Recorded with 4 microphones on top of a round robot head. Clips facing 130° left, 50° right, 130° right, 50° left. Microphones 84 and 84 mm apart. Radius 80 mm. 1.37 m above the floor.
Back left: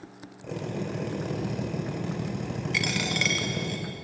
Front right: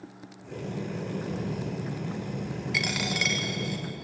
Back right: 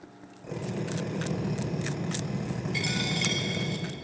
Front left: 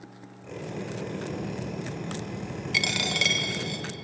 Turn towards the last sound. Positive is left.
turn(degrees=35)